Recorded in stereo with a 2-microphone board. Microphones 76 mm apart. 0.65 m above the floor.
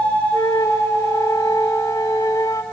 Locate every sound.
0.3 s a flute: 45° left (ahead or behind), 2.0 m